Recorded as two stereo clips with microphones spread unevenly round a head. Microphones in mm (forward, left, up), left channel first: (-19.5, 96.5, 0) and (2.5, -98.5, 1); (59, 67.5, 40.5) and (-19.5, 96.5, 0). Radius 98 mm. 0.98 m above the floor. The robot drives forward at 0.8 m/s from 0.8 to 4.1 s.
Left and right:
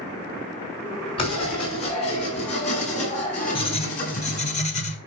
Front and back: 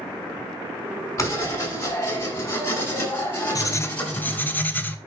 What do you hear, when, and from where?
1.2 s writing: 30° left, 6.5 m; by 4.5 s 45° left, 4.5 m
3.5 s writing: 40° left, 1.1 m; by 5.0 s 75° left, 0.9 m